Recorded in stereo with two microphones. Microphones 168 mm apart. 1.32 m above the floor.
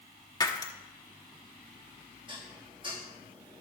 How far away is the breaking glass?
About 1.0 m.